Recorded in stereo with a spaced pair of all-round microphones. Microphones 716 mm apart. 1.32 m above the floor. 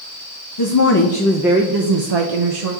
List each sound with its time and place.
0.6 s a woman speaking: 35° left (ahead or behind), 0.8 m; by 2.7 s 55° right (ahead or behind), 0.9 m